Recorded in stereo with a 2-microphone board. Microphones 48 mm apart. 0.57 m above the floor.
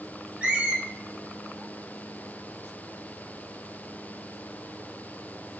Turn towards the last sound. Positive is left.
turn(degrees=-25)  # may be behind; listen again after turning